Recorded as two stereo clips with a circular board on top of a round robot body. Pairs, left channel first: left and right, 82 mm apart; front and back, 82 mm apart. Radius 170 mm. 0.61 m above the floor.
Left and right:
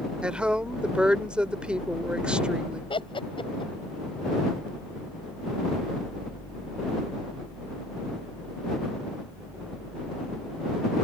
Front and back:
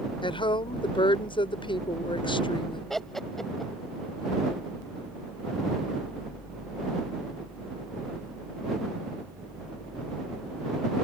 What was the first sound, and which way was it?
A woman speaking, 15° right.